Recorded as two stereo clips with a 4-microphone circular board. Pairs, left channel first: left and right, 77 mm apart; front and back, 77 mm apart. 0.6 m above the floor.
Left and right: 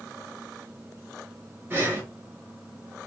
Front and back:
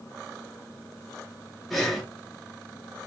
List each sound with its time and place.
1.7 s breathing: 90° right, 0.8 m